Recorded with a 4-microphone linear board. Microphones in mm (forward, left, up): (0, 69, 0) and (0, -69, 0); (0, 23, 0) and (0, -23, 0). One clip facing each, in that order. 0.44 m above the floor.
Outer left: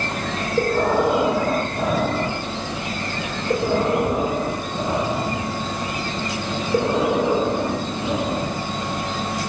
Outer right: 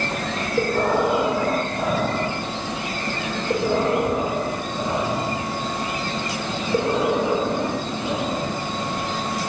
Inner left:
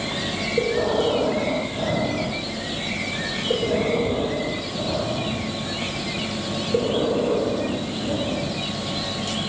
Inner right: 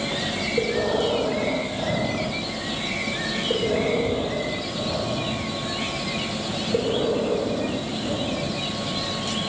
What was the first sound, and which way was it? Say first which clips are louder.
Breathing: outer left 1 dB, inner left 2 dB; 5° left (ahead or behind).